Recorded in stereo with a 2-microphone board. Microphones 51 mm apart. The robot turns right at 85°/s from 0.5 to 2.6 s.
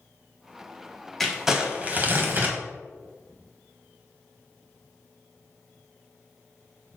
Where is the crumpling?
170° left, 1.2 m; by 2.6 s 75° right, 1.2 m.